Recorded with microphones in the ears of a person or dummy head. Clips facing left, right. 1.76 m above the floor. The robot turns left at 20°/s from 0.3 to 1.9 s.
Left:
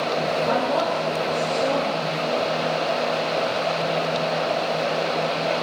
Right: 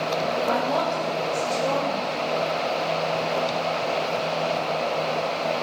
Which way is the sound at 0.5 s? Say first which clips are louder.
Left 2 dB; centre (ahead or behind).